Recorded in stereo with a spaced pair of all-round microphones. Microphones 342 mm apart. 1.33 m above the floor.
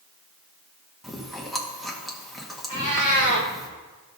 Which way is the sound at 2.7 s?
65° right (ahead or behind).